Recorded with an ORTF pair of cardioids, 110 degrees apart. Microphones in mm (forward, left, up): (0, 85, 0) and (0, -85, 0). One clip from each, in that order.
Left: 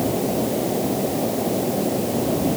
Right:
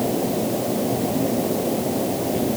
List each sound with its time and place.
Only background noise.